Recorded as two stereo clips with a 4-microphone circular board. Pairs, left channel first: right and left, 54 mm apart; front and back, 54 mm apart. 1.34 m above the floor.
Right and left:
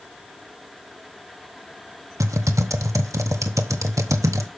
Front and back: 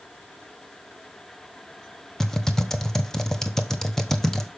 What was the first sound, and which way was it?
Typing on a keyboard, 85° left.